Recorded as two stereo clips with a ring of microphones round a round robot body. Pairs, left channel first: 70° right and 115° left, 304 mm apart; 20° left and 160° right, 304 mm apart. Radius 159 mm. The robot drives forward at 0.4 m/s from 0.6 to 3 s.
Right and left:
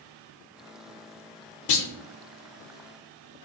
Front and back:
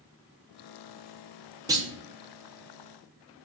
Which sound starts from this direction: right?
A clunk, at 1.7 s.